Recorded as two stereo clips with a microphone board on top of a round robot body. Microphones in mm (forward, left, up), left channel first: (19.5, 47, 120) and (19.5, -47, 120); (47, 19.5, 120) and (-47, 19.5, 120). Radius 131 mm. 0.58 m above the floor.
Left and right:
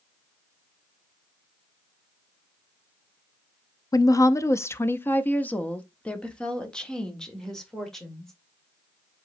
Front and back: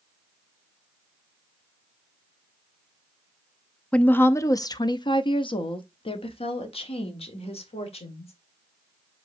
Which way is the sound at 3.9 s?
70° left.